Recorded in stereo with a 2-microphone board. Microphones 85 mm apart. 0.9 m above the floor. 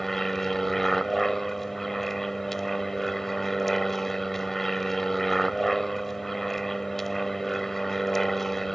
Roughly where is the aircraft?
Centre.